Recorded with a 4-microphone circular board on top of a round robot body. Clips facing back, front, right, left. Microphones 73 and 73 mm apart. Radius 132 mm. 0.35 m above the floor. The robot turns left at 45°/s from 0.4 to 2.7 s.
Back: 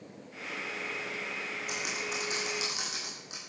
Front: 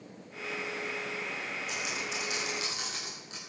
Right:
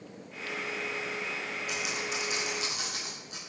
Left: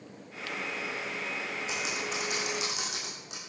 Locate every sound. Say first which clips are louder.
1.7 s typing on a keyboard: back 2 dB, right 1 dB; 155° left, 7 m; by 3.4 s 110° left, 7 m